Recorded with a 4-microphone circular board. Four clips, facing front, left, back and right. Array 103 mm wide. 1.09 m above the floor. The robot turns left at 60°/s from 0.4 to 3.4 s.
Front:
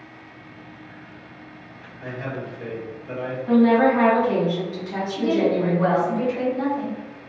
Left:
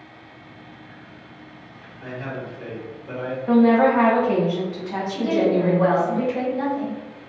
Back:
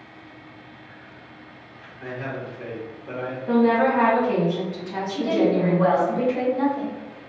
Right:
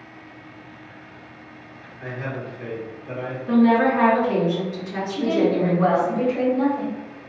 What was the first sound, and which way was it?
A man speaking, 115° right.